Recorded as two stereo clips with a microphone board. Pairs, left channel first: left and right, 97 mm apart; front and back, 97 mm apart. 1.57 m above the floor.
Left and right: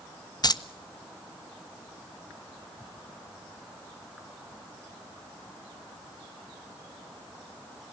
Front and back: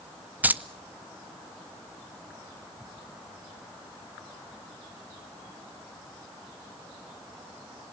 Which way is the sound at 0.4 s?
110° left.